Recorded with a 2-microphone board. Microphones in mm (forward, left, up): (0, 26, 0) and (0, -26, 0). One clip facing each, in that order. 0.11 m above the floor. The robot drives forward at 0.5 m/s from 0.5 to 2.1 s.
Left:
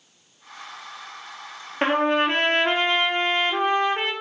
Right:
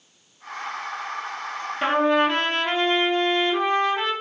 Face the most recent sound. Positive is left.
turn(degrees=40)  # may be behind; listen again after turning